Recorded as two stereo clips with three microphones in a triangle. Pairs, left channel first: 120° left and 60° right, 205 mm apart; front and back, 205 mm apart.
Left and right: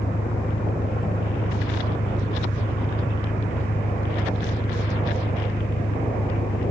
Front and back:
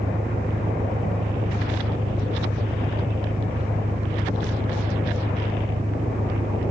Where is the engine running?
120° left.